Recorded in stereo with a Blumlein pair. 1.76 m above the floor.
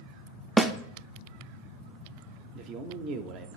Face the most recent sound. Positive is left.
turn(degrees=-40)